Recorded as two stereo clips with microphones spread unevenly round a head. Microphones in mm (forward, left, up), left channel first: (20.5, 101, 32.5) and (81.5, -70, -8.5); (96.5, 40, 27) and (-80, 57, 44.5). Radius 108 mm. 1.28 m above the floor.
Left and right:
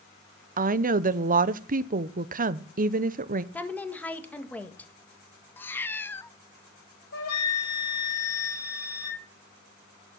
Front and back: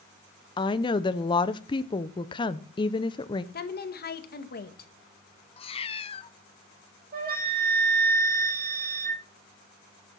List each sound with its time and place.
0.6 s a woman speaking: 65° right, 0.7 m
3.5 s a woman speaking: 25° left, 1.7 m
5.6 s a cat meowing: 50° left, 0.7 m
7.1 s a flute: 140° left, 6.5 m